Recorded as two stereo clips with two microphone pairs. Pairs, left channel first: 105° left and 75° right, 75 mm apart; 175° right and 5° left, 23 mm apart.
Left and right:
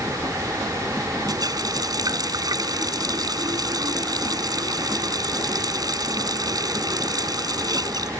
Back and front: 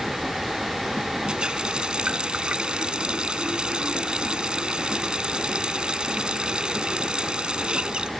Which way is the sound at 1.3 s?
45° right.